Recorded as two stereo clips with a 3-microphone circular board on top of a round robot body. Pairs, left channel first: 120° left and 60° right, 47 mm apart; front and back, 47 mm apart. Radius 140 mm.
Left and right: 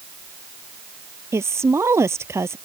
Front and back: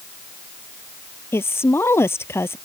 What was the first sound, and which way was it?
A woman speaking, 35° right.